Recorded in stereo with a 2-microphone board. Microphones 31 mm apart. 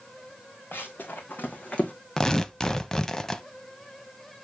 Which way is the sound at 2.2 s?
15° left (ahead or behind).